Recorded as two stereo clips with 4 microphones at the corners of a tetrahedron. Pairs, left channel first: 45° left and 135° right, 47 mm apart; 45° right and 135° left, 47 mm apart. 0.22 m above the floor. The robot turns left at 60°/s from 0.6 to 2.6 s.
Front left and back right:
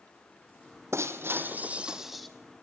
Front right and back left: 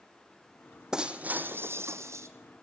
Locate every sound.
0.9 s breaking glass: 150° right, 1.5 m; by 2.3 s 130° left, 1.5 m